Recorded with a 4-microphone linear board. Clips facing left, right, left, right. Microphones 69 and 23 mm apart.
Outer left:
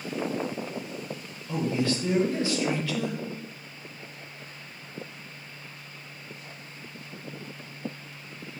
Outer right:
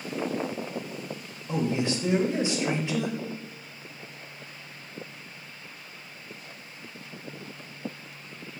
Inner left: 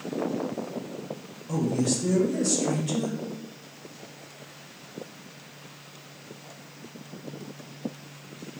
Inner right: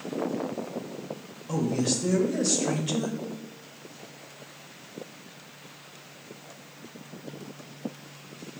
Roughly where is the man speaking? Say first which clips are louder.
Even, inner left 1 dB; right.